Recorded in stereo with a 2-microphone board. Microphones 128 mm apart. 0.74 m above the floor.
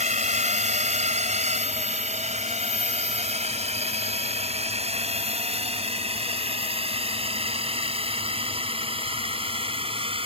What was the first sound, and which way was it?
A drone, 70° right (ahead or behind).